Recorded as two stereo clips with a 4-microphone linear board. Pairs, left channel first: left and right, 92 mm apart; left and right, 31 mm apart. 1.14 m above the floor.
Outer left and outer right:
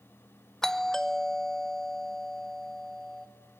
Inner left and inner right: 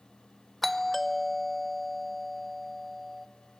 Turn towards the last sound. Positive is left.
turn(degrees=5)  # may be behind; listen again after turning